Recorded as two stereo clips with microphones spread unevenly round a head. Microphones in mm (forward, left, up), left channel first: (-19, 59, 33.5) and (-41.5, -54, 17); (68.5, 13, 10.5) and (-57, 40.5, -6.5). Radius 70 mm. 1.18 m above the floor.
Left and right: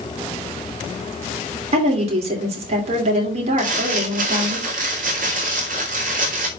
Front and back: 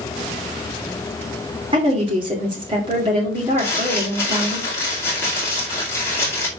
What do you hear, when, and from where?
1.7 s a woman speaking: 135° right, 3 m
3.6 s crumpling: 85° right, 2 m